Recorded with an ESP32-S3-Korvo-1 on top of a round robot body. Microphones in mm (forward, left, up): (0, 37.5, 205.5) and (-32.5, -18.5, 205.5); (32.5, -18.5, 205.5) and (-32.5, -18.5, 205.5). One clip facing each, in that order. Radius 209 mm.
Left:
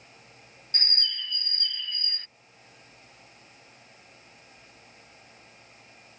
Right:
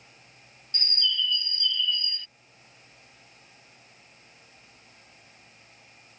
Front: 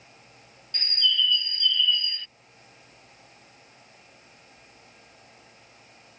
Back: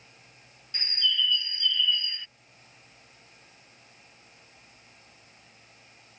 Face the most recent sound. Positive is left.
turn(degrees=105)